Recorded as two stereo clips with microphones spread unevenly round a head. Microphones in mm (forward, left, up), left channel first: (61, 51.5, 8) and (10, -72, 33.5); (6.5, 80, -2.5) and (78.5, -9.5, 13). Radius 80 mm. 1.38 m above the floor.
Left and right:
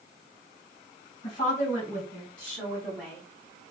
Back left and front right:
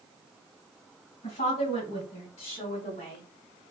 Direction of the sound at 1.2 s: 120° left.